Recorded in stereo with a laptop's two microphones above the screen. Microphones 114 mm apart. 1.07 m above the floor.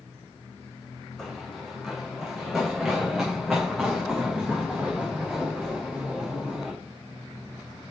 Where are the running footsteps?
5° left (ahead or behind), 4.5 m; by 6.7 s centre (ahead or behind), 9 m.